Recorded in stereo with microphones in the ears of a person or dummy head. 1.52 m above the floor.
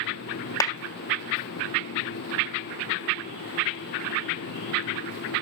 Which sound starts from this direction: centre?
A clap, at 0.6 s.